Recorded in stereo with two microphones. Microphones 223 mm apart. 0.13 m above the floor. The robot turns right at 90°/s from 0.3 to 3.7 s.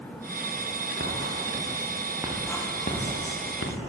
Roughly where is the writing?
Right.